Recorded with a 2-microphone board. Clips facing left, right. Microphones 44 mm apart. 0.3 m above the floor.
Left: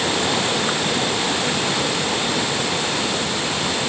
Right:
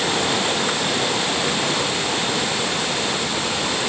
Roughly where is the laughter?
I don't hear laughter.